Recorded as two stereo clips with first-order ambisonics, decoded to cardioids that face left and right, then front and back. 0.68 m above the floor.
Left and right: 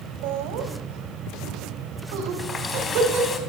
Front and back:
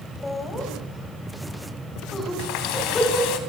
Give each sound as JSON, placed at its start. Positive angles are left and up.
{"t": 0.2, "sound": "laughter", "azimuth_deg": -80, "distance_m": 4.5}
{"t": 2.4, "sound": "a running tap", "azimuth_deg": 20, "distance_m": 3.0}